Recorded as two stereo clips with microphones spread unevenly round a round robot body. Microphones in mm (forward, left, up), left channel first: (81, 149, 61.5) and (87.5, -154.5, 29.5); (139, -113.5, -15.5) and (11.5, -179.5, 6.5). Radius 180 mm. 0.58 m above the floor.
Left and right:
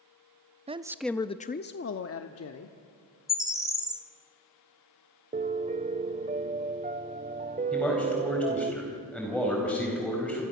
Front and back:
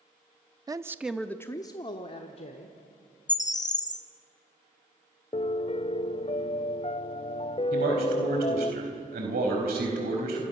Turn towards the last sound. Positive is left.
turn(degrees=180)